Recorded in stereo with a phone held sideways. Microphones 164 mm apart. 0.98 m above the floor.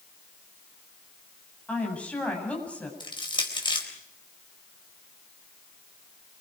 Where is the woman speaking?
10° left (ahead or behind), 8.5 m.